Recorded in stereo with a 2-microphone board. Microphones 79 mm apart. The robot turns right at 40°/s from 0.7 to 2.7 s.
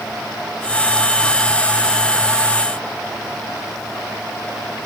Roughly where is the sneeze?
No sneeze in this recording.